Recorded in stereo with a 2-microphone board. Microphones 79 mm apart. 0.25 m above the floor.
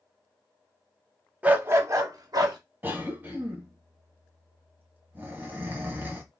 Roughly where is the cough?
Right.